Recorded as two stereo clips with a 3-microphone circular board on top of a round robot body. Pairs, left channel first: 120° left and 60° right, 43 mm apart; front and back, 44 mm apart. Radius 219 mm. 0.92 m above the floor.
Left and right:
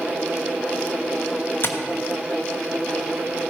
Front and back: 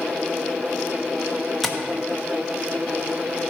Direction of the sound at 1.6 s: 90° left.